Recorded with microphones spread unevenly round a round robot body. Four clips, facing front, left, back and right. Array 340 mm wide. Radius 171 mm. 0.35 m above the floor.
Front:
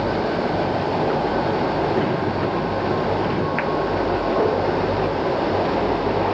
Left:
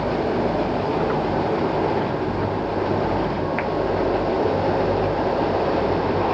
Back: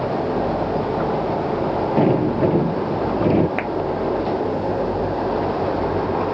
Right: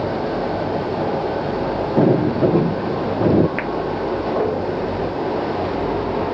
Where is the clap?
135° right.